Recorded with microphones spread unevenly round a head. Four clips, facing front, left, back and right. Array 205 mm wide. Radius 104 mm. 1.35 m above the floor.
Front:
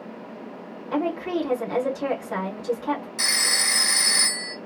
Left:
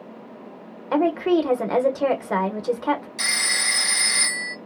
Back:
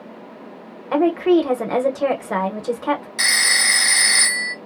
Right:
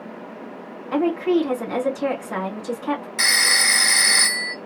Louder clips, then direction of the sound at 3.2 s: Right 5 dB, back 6 dB; 120° right.